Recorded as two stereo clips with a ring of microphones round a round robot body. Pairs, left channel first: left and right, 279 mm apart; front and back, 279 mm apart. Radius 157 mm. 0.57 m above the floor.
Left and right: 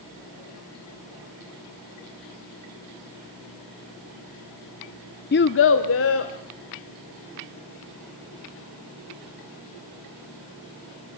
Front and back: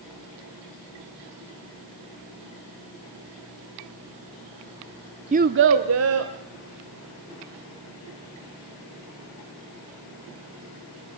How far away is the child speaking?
About 0.6 m.